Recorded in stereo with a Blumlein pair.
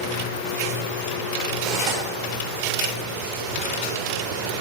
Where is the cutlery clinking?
40° right, 2 m.